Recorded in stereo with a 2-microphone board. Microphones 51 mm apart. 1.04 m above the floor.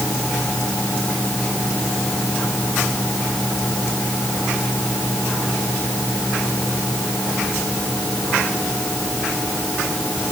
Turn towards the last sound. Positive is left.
No sound to turn to.